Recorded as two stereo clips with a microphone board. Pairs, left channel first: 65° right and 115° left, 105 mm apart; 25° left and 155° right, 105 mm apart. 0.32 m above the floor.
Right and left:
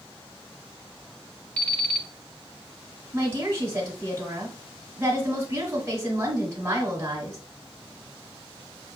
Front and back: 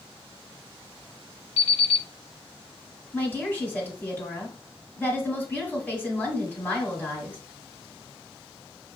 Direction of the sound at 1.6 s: 10° left.